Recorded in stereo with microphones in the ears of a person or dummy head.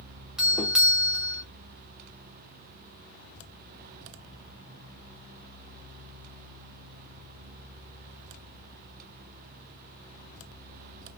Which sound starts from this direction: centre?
A doorbell, at 0.4 s.